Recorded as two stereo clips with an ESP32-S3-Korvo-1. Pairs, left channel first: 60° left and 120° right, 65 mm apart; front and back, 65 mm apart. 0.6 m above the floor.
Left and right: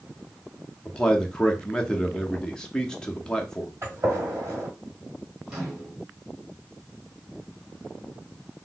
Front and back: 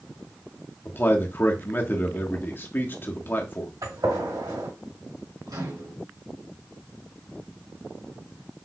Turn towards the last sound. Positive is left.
turn(degrees=165)